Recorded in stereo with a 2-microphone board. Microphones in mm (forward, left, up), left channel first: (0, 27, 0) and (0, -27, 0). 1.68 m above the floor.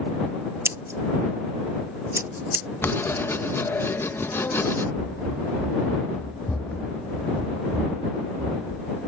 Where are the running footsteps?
45° left (ahead or behind); by 8.9 s 10° left (ahead or behind).